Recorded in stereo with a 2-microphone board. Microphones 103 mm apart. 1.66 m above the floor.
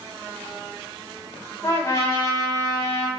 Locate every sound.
1.6 s a trumpet: 35° left (ahead or behind), 3 m